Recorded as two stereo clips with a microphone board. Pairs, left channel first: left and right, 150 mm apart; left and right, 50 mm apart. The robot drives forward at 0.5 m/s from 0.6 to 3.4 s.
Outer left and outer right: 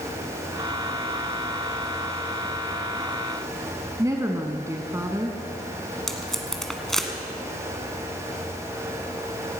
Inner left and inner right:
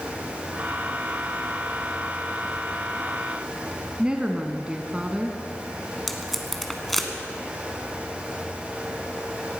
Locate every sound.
4.0 s a woman speaking: 20° right (ahead or behind), 1.1 m
6.1 s tape being pulled: 5° left (ahead or behind), 1.7 m